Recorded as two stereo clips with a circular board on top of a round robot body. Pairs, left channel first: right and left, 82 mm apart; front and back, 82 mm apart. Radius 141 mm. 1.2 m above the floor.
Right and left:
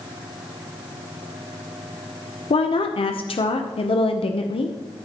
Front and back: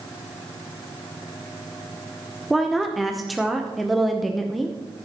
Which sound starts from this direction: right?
A woman speaking, at 2.5 s.